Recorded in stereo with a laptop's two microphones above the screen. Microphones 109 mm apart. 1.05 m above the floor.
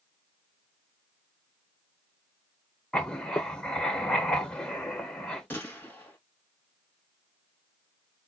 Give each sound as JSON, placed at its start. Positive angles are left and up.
{"t": 2.9, "sound": "writing", "side_deg": 10, "distance_m": 0.8}
{"t": 5.5, "sound": "a gunshot", "side_deg": 15, "distance_m": 1.8}